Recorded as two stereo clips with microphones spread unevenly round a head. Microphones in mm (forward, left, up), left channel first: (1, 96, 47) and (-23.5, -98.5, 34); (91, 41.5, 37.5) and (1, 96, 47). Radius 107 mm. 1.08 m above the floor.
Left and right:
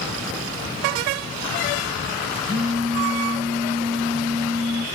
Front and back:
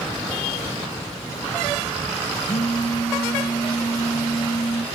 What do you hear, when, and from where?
2.5 s a phone buzzing: 10° right, 5.5 m